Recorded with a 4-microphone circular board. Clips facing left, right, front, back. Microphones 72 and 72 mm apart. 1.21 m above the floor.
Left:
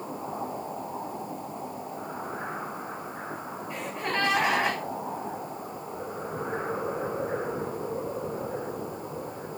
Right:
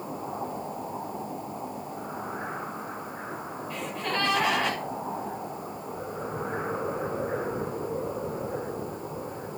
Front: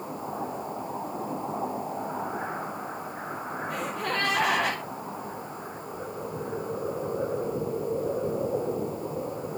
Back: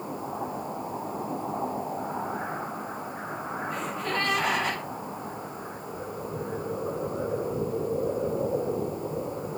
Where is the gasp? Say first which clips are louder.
Even, front 1 dB; 20° left, 6.5 m.